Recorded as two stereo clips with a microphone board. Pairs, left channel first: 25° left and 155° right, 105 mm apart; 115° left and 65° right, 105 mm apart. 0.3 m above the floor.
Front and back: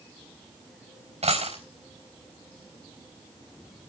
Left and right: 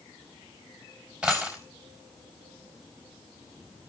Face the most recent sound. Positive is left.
turn(degrees=-145)